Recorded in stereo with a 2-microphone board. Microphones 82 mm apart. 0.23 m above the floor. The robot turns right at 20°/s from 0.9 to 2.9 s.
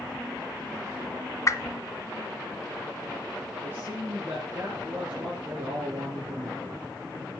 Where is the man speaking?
25° right (ahead or behind), 5 m.